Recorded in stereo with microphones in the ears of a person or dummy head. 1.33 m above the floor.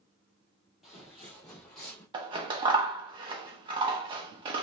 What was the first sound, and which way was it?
Footsteps, 5° right (ahead or behind).